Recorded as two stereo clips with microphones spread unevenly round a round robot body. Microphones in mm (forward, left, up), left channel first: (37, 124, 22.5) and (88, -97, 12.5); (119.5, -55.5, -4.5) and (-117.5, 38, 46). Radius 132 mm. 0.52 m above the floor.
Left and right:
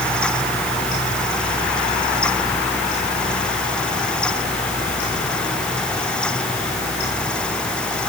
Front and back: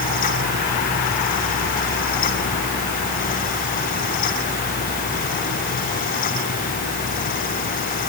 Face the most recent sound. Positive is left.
No sound to turn to.